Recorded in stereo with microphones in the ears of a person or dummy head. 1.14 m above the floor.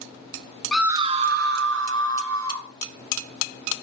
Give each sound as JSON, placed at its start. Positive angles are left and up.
{"t": 0.7, "sound": "a scream", "side_deg": 0, "distance_m": 0.5}